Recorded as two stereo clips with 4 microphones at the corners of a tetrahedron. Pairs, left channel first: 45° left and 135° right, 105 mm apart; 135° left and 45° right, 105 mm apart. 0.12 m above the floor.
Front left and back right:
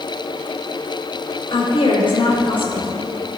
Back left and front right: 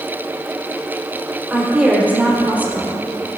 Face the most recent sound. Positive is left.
turn(degrees=25)